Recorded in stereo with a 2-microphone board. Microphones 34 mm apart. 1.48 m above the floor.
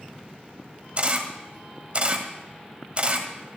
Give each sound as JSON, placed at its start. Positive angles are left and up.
{"t": 1.0, "sound": "a camera shutter", "side_deg": -40, "distance_m": 1.6}